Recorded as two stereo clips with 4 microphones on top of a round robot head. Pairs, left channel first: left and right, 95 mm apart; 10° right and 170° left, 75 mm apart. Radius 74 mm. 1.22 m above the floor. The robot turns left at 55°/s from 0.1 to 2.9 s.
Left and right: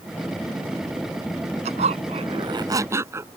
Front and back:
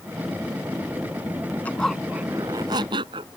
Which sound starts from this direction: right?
A zipper, at 1.6 s.